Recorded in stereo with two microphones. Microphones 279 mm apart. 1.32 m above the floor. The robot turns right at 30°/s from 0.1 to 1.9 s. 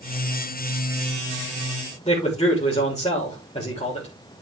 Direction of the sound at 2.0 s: 25° left (ahead or behind).